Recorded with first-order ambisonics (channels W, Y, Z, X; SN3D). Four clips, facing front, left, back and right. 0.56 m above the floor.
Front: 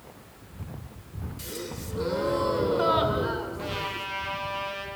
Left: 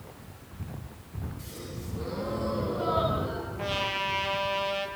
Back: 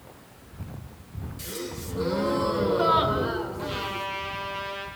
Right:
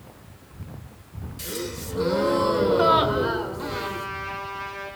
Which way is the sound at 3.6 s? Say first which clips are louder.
Even, back 1 dB; 75° left.